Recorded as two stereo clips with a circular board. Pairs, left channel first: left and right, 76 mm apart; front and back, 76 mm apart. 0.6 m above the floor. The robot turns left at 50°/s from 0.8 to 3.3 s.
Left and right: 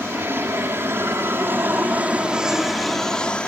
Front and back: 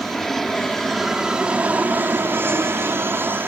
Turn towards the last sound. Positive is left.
turn(degrees=155)